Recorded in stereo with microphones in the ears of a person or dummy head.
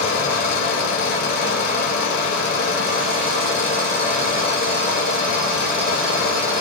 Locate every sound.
0.0 s a fan: 40° left (ahead or behind), 1.0 m